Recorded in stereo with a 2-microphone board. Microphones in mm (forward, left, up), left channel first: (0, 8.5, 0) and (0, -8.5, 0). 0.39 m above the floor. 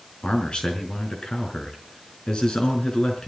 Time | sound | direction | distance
0.2 | a man speaking | 60° left (ahead or behind) | 5 m